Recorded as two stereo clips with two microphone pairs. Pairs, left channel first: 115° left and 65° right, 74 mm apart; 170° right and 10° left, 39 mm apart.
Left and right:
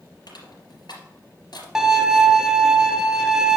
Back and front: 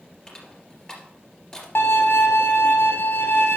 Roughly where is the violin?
Behind right.